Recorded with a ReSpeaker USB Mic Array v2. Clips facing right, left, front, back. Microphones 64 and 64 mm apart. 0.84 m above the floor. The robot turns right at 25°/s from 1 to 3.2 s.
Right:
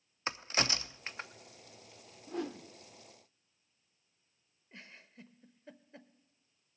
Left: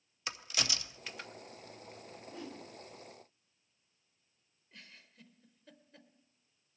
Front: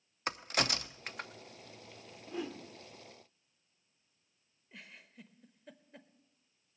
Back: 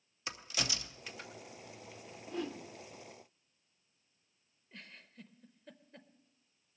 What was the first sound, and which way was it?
A crack, 35° right.